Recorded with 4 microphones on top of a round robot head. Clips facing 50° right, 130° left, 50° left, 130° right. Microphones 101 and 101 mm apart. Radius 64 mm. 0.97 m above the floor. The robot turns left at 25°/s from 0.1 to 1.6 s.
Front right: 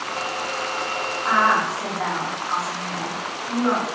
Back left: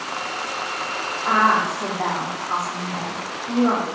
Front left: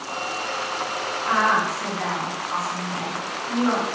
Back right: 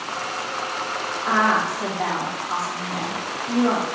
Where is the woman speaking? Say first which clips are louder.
Back left 1 dB, back right 1 dB; 160° right, 2.5 m; by 3.9 s 165° right, 2.5 m.